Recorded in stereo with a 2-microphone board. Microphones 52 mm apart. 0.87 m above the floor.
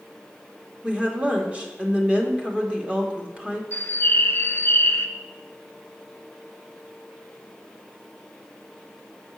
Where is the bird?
55° left (ahead or behind), 0.9 m.